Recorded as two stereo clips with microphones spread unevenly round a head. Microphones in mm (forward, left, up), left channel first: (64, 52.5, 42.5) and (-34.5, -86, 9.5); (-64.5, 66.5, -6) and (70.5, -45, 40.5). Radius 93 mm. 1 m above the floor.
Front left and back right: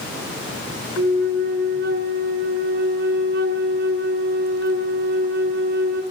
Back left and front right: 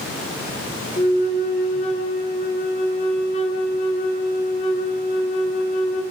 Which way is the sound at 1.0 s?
165° right.